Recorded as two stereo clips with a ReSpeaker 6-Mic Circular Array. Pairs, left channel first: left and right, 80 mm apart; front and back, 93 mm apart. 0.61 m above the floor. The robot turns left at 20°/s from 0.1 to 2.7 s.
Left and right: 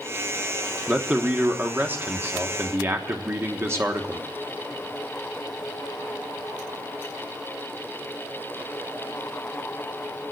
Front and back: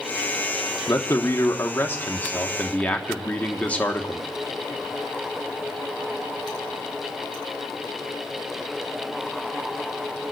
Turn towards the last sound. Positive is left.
turn(degrees=-65)